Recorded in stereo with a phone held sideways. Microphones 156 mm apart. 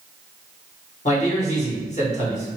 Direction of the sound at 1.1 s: 45° left (ahead or behind).